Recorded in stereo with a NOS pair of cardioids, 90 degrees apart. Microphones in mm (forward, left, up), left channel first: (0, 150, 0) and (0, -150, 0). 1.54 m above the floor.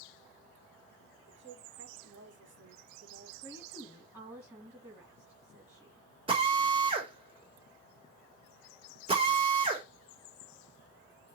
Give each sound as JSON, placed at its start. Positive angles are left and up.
{"t": 1.3, "sound": "a woman speaking", "azimuth_deg": -40, "distance_m": 2.5}
{"t": 3.4, "sound": "a woman speaking", "azimuth_deg": -5, "distance_m": 3.0}
{"t": 6.3, "sound": "a drill", "azimuth_deg": -20, "distance_m": 2.5}